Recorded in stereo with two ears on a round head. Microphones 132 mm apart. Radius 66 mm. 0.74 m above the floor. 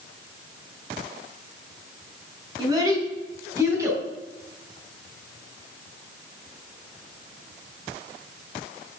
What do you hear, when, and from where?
2.6 s a child speaking: 30° right (ahead or behind), 4.5 m; by 4.0 s 20° right (ahead or behind), 4 m